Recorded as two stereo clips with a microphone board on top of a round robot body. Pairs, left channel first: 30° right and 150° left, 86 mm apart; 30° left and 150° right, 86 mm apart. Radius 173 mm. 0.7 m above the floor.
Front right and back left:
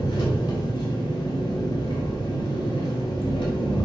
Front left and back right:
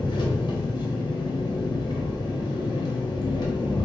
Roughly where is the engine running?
Ahead.